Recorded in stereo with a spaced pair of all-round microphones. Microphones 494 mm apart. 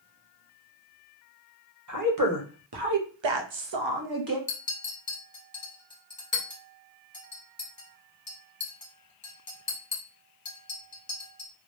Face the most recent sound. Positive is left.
turn(degrees=45)  # may be behind; listen again after turning